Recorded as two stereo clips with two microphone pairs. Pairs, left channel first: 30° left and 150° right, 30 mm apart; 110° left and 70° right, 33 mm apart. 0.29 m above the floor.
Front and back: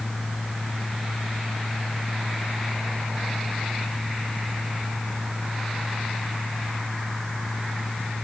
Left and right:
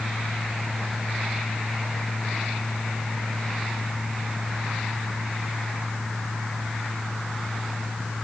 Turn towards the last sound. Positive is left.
No sound to turn to.